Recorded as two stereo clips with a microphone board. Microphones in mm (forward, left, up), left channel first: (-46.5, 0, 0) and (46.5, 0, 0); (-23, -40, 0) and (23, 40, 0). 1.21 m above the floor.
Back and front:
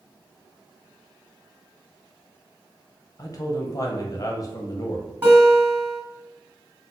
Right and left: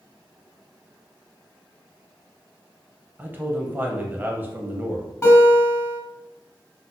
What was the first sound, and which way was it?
A man speaking, 130° left.